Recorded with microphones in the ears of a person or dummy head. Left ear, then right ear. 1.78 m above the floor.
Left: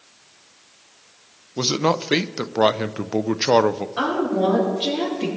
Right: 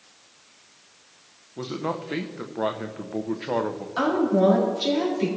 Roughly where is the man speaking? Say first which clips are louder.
Left 9 dB; left.